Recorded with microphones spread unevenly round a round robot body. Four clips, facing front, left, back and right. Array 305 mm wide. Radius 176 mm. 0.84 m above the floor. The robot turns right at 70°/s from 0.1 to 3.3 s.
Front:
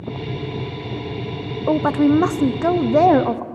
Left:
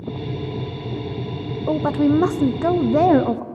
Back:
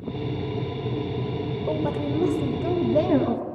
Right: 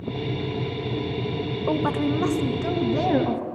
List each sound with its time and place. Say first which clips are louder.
1.7 s a woman speaking: left 6 dB, front 12 dB; 20° right, 0.9 m; by 3.5 s 95° left, 0.9 m